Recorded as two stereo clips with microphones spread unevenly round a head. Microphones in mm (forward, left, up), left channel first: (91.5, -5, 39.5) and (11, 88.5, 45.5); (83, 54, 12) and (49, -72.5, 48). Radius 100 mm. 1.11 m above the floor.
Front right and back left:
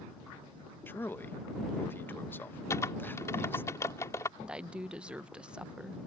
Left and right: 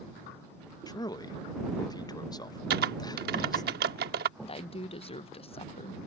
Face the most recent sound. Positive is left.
turn(degrees=50)